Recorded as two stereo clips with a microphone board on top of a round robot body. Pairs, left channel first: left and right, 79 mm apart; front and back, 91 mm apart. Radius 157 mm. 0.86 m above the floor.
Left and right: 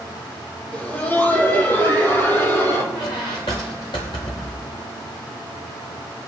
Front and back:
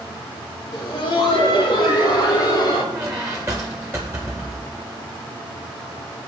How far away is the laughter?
About 2.5 m.